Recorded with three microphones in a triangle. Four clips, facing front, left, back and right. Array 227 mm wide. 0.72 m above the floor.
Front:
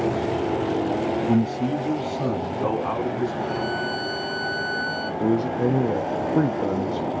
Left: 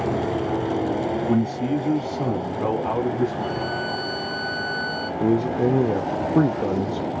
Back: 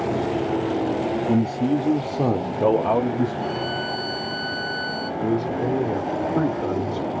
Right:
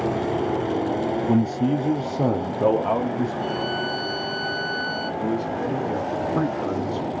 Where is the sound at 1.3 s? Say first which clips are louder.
Right 2 dB, back 3 dB; 95° right, 0.7 m; by 3.3 s 150° right, 1.5 m.